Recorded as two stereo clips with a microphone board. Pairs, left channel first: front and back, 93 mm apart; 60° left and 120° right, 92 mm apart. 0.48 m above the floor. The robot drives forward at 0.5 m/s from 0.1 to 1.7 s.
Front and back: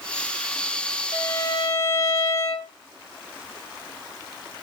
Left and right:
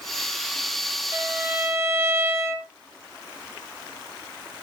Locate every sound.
1.1 s a violin: 50° right, 2.5 m; by 2.7 s 55° right, 2.5 m